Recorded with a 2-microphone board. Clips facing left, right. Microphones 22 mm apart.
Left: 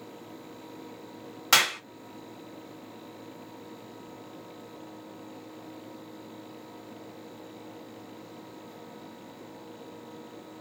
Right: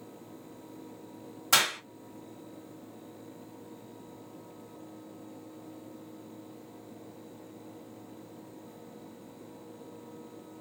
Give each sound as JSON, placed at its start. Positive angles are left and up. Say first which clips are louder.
{"t": 1.5, "sound": "a clap", "louder": "left 3 dB", "side_deg": 45, "distance_m": 1.2}